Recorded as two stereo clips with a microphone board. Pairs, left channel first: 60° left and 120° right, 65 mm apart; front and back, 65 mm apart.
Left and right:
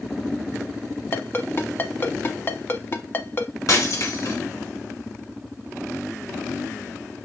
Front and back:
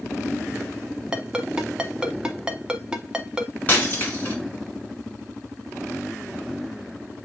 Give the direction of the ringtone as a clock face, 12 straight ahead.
8 o'clock.